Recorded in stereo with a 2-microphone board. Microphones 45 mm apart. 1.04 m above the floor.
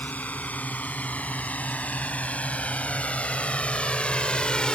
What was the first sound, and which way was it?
A drone, 40° left (ahead or behind).